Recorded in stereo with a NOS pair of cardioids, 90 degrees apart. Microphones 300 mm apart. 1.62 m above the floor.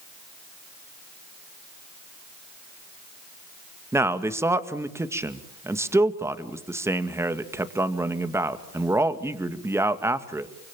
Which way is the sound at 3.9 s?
10° right.